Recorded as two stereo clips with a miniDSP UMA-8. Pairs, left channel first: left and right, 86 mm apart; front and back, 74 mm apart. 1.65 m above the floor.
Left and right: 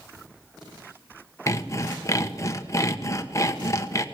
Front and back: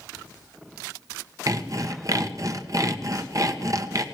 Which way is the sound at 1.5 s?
145° left.